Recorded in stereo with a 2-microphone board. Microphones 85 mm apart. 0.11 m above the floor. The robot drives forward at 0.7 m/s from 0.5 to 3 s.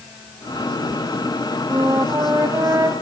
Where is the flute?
35° right (ahead or behind), 5.5 m; by 2.9 s 30° right (ahead or behind), 6 m.